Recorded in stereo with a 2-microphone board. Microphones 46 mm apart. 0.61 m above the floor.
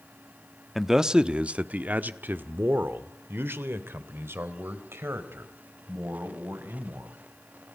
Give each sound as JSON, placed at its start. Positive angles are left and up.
{"t": 0.8, "sound": "a man speaking", "side_deg": -5, "distance_m": 0.8}